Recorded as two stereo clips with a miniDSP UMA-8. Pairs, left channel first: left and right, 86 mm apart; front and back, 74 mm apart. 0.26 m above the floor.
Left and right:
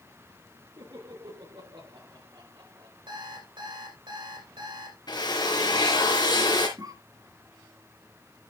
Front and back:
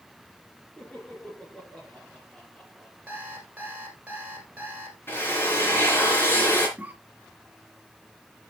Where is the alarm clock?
110° right, 3.5 m.